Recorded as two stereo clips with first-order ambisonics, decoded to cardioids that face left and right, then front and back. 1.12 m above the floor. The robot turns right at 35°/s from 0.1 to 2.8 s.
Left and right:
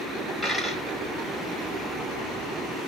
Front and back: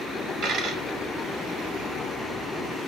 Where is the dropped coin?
Straight behind, 1.1 m; by 0.8 s 165° right, 1.1 m.